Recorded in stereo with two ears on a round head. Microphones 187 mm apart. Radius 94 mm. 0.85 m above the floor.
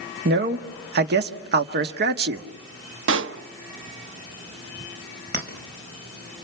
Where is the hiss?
No hiss in this recording.